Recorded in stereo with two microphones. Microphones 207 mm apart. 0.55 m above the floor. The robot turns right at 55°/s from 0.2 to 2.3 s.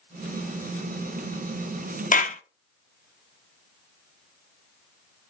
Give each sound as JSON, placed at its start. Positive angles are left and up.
{"t": 2.1, "sound": "a clap", "side_deg": 40, "distance_m": 0.6}